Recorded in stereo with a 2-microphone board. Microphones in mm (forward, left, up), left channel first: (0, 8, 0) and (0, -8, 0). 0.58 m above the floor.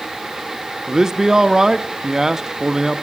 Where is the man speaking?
35° right (ahead or behind), 0.7 m.